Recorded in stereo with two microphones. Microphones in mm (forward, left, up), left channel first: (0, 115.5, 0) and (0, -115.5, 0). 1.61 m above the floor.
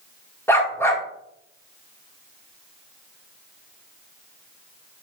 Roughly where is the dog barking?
Centre.